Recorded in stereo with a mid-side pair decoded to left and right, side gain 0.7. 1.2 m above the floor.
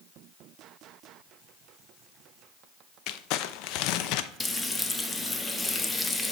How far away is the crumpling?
About 0.5 m.